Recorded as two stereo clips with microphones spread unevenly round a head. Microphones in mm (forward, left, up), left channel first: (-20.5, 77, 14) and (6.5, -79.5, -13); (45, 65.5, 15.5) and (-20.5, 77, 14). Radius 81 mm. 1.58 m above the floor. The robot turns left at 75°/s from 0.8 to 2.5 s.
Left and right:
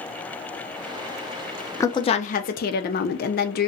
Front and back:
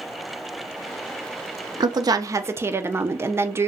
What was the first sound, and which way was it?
A woman speaking, 170° left.